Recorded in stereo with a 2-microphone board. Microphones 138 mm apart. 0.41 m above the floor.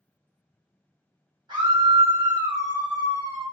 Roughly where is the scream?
Right.